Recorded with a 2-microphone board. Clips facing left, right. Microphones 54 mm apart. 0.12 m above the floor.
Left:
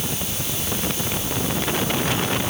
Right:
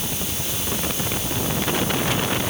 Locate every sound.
Only background noise.